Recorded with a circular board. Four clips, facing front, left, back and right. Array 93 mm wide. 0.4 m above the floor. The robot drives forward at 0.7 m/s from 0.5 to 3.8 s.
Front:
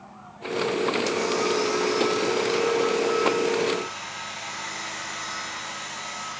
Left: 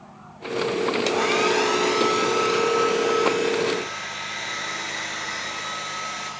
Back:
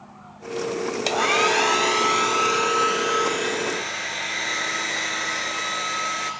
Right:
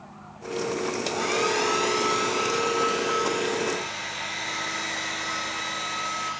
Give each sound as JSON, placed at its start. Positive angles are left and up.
{"t": 1.1, "sound": "a hair dryer", "azimuth_deg": 160, "distance_m": 0.6}